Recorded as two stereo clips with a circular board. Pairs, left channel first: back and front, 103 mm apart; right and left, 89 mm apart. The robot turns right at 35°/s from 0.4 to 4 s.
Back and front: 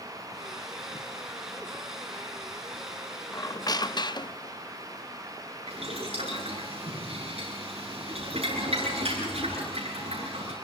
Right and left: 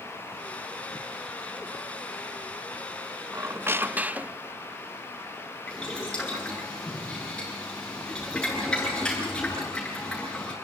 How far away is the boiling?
About 9.5 m.